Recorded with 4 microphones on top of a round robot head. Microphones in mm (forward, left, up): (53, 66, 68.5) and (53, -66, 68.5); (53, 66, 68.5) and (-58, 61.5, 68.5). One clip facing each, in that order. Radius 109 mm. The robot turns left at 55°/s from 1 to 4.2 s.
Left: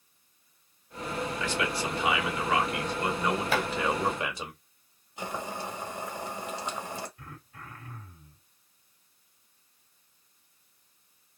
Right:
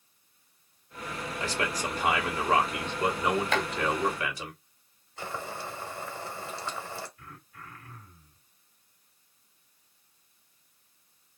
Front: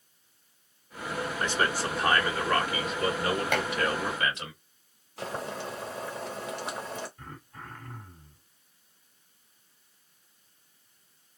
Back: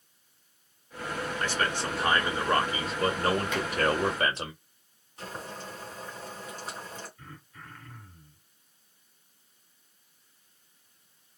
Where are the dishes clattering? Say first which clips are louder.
Even, front 2 dB; 10° left, 0.7 m; by 3.7 s straight ahead, 0.7 m.